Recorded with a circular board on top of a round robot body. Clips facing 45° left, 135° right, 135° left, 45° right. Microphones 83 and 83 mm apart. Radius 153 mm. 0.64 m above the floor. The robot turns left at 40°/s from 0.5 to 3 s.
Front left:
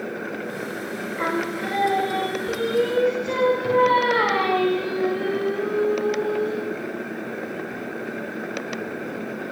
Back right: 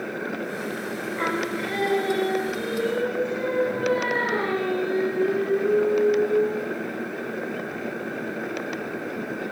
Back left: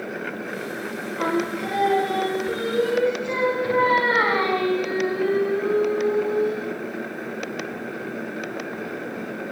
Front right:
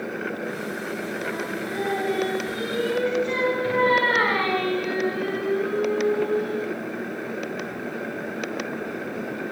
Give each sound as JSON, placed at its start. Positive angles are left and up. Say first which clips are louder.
{"t": 1.2, "sound": "singing", "louder": "front left 2 dB, back left 5 dB", "azimuth_deg": 130, "distance_m": 5.0}